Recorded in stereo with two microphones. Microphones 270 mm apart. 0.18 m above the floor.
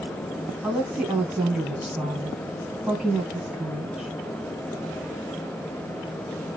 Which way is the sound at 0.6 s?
Centre (ahead or behind).